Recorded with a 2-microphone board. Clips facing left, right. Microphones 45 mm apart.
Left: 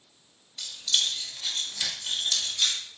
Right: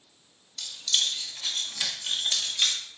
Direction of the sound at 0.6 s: 15° left (ahead or behind).